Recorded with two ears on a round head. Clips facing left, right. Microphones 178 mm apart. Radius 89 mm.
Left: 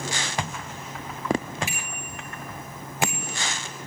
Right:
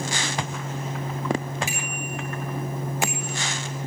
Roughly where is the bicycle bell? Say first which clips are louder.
Right 6 dB; right.